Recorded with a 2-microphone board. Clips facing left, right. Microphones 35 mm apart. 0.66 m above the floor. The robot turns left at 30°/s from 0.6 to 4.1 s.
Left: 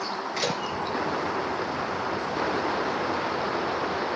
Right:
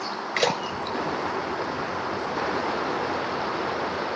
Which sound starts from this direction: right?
A splash, at 0.4 s.